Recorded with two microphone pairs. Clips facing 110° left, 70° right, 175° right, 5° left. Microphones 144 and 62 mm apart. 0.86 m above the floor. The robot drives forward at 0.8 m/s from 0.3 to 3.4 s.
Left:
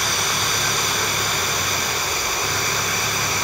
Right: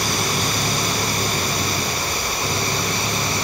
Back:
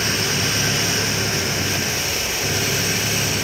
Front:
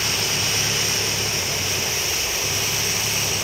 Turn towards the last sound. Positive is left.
turn(degrees=-135)